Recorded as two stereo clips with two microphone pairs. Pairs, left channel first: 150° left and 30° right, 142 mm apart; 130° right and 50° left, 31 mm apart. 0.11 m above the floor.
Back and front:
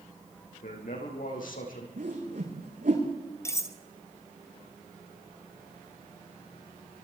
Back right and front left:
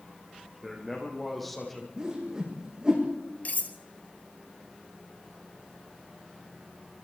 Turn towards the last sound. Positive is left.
turn(degrees=-145)